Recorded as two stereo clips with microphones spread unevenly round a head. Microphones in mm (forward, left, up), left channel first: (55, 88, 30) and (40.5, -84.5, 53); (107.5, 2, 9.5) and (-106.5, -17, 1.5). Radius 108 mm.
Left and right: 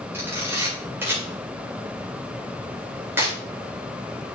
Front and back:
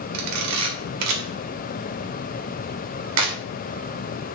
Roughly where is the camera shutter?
Behind.